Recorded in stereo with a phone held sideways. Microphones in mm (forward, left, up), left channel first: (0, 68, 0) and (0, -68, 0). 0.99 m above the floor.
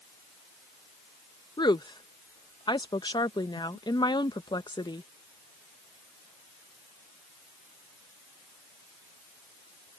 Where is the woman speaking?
35° left (ahead or behind).